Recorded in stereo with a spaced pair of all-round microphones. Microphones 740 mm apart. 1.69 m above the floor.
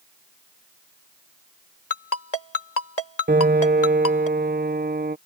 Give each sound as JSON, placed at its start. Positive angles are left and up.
{"t": 1.9, "sound": "a ringtone", "side_deg": 60}
{"t": 3.3, "sound": "a piano", "side_deg": -15}